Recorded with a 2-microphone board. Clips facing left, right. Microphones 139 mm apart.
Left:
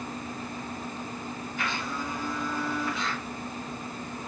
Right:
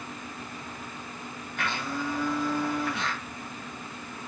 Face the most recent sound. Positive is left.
turn(degrees=-60)  # may be behind; listen again after turning